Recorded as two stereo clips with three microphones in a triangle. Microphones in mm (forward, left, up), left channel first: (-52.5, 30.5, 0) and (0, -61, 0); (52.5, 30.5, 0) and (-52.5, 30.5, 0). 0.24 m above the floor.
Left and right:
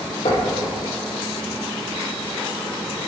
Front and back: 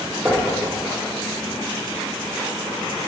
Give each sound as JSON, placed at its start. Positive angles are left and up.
{"t": 0.2, "sound": "knocking", "azimuth_deg": 105, "distance_m": 4.5}